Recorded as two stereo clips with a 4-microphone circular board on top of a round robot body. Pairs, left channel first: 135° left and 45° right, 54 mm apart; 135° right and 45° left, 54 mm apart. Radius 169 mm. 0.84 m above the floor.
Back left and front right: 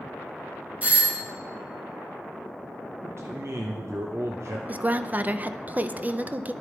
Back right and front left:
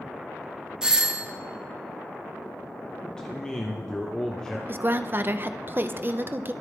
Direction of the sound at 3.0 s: 60° right.